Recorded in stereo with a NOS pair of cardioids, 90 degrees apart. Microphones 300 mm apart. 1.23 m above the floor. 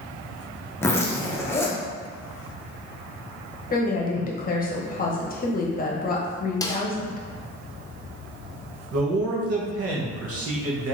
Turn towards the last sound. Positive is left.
turn(degrees=-50)